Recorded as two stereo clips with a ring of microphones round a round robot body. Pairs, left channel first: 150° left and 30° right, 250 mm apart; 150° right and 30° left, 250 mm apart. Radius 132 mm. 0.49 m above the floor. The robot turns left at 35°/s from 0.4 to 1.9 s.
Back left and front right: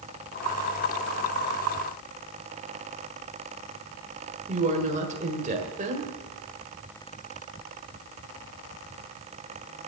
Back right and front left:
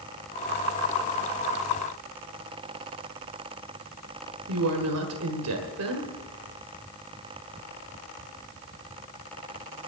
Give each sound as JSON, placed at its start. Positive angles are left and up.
{"t": 4.5, "sound": "a woman speaking", "azimuth_deg": 30, "distance_m": 1.8}